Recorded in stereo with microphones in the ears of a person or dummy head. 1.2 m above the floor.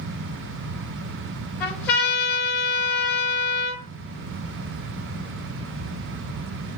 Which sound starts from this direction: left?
A trumpet, at 1.6 s.